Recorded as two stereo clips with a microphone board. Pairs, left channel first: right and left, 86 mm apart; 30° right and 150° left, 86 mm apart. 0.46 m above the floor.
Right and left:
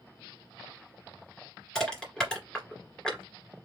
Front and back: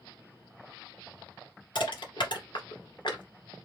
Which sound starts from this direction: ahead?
Crushing, at 1.8 s.